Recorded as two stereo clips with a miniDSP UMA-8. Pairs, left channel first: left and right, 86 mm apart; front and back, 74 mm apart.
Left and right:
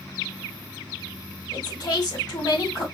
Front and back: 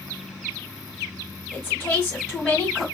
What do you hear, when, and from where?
1.5 s a woman speaking: 60° left, 2.0 m